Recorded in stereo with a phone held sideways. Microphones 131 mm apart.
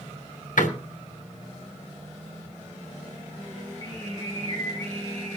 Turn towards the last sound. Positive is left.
turn(degrees=30)  # may be behind; listen again after turning